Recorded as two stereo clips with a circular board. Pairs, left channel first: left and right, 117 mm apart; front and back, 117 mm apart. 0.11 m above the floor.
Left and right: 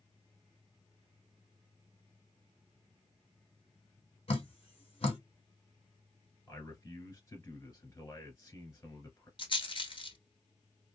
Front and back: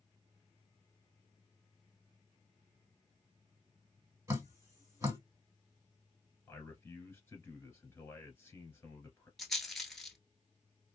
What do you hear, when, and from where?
4.3 s dripping: 115° left, 1.4 m
6.5 s a man speaking: 55° left, 1.3 m
9.4 s a rattle: 90° left, 0.9 m